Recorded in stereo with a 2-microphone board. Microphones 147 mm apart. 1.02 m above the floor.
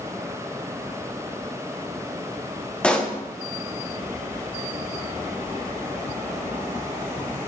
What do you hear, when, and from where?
2.8 s a pop: 5° left (ahead or behind), 0.8 m